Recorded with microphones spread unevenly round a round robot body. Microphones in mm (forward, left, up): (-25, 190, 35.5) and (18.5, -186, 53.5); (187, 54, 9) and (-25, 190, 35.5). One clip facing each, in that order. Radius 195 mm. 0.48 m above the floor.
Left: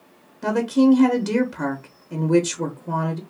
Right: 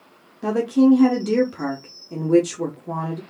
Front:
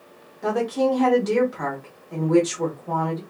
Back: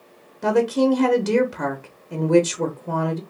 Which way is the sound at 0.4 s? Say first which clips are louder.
Right 1 dB, back 4 dB; 170° left.